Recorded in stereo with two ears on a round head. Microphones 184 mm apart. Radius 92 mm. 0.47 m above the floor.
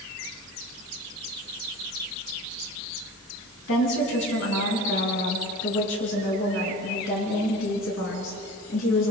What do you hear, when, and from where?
3.7 s a woman speaking: 65° left (ahead or behind), 5 m; by 9.1 s 75° left (ahead or behind), 8 m